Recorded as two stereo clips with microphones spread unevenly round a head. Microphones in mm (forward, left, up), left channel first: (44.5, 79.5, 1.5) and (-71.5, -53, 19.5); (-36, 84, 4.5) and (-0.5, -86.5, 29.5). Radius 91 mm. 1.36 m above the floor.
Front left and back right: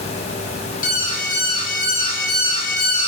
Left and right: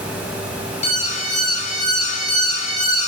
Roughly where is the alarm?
Left.